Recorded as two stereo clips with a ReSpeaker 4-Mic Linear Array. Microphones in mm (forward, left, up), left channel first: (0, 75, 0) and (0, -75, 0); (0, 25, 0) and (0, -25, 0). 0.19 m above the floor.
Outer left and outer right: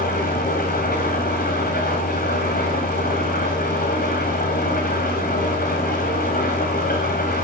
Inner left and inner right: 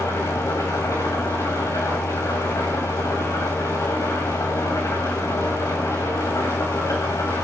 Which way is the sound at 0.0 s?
85° left.